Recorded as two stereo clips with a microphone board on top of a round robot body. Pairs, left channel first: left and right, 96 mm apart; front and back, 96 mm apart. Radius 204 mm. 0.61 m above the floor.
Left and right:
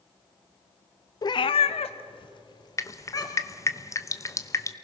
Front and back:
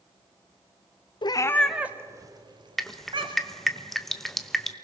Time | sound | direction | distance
1.2 | a cat meowing | 40° left | 0.6 m
2.8 | dripping | 85° left | 1.3 m